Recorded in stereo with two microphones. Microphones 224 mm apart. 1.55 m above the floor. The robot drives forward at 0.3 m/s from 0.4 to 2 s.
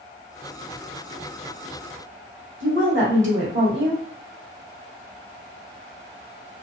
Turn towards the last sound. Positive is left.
turn(degrees=-60)  # may be behind; listen again after turning